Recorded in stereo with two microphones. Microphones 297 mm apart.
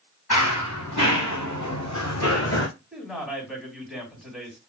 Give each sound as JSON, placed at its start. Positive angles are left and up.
{"t": 0.3, "sound": "running footsteps", "side_deg": 85, "distance_m": 2.5}
{"t": 2.9, "sound": "a man speaking", "side_deg": 0, "distance_m": 2.5}